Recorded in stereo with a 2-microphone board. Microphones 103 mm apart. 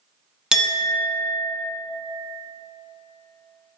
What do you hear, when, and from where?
0.5 s a clink: 5° right (ahead or behind), 0.7 m